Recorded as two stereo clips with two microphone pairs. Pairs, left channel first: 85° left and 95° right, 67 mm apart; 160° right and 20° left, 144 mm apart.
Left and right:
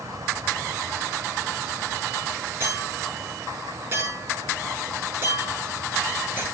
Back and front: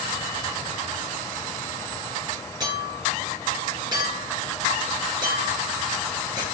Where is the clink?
40° right, 9 m.